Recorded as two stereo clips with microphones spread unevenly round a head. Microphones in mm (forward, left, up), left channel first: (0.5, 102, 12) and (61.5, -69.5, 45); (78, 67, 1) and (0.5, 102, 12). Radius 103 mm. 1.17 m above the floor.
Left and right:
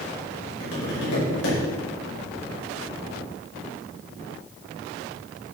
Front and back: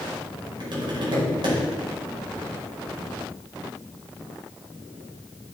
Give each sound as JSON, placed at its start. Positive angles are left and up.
{"t": 0.6, "sound": "tapping", "azimuth_deg": 135, "distance_m": 5.5}